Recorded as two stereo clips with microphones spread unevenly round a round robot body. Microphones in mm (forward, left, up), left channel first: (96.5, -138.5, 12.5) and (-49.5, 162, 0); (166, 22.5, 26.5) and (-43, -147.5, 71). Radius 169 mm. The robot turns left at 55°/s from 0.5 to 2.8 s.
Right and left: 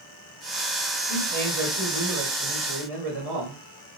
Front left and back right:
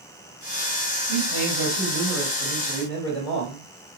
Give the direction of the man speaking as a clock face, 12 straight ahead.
5 o'clock.